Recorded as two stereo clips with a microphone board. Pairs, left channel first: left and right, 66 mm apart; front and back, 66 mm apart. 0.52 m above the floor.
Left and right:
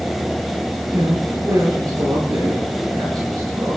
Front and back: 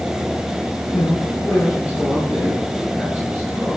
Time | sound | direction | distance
0.9 | a man speaking | 50° right | 9.5 m